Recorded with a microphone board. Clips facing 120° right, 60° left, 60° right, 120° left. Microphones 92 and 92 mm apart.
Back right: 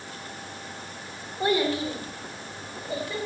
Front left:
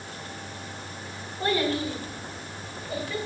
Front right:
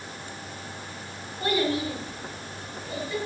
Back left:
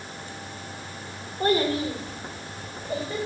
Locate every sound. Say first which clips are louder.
1.4 s a child speaking: back right 1 dB, back left 3 dB; 165° left, 3 m; by 3.2 s 170° left, 5 m